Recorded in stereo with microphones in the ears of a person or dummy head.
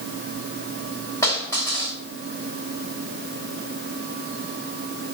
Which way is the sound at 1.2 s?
15° left (ahead or behind).